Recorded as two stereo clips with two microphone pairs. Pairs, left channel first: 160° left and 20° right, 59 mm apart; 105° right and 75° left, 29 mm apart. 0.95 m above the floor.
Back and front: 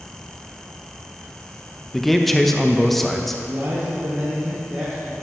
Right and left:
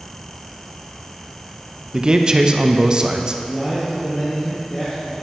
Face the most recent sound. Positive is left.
turn(degrees=-60)